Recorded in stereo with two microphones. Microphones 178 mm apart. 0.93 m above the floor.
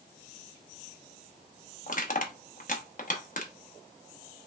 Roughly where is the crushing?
Left.